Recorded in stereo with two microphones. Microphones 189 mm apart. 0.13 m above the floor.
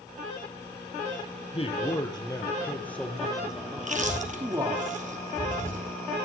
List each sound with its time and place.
1.5 s a man speaking: 30° left (ahead or behind), 3 m; by 4.8 s 20° right (ahead or behind), 3.5 m
3.8 s chewing: 40° right (ahead or behind), 2.5 m